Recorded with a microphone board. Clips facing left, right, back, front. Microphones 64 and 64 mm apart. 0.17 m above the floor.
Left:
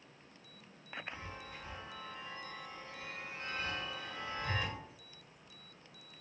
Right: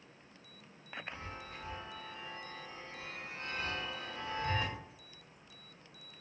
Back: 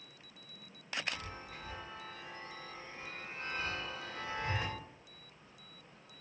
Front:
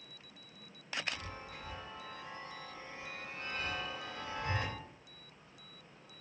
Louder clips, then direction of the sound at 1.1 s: Right 1 dB, even; 125° right.